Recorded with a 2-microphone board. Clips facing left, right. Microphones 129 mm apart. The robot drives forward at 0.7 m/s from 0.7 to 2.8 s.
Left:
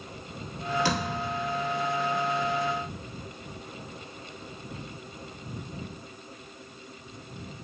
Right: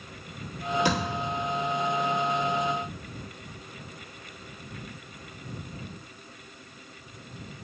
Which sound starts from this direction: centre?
A thud, at 0.8 s.